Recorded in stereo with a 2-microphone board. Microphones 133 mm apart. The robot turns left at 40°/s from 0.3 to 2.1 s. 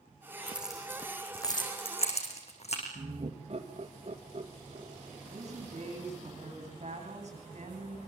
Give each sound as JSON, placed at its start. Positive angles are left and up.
{"t": 0.5, "sound": "keys jangling", "side_deg": -10, "distance_m": 6.0}
{"t": 3.0, "sound": "laughter", "side_deg": -50, "distance_m": 2.0}
{"t": 5.3, "sound": "a woman speaking", "side_deg": -50, "distance_m": 9.5}